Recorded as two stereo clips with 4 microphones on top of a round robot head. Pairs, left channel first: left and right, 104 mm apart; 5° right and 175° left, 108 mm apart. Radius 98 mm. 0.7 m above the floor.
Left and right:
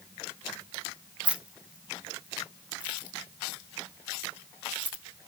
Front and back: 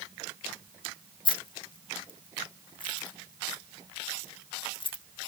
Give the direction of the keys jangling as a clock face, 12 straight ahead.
1 o'clock.